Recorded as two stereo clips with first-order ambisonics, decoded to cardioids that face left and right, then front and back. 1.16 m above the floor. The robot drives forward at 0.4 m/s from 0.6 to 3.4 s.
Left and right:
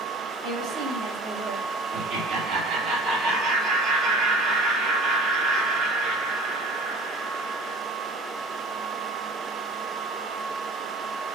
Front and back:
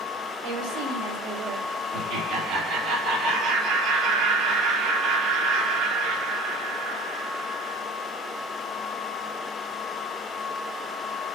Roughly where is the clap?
No clap in this recording.